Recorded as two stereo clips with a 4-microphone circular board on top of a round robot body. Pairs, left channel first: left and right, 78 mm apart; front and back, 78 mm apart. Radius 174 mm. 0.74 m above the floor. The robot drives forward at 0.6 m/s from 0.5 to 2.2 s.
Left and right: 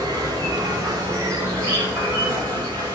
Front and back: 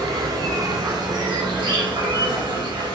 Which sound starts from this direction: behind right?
An insect, at 0.0 s.